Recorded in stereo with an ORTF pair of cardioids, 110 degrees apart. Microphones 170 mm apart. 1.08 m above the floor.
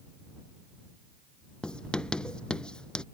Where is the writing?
5° left.